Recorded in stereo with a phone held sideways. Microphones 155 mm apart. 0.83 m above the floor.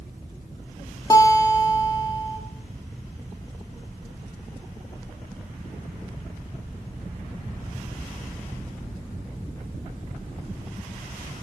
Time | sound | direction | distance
1.1 | a guitar | 25° left (ahead or behind) | 1.3 m